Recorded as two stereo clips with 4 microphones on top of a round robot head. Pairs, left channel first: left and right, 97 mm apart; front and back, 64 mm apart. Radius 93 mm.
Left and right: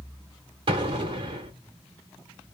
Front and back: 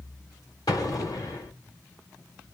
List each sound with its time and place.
0.7 s an explosion: 55° right, 1.2 m